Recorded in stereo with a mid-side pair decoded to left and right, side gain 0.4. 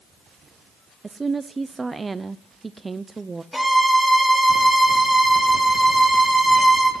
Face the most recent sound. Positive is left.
turn(degrees=0)